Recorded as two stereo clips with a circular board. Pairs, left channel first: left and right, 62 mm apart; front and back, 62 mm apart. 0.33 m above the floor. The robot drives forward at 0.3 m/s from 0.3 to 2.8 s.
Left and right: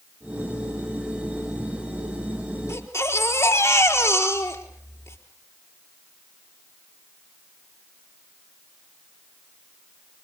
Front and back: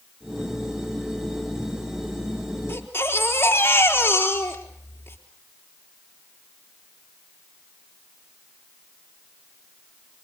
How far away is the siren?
No siren in this recording.